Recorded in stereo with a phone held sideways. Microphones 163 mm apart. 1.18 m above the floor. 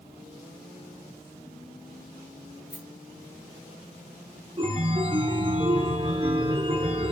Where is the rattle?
75° left (ahead or behind), 6 m.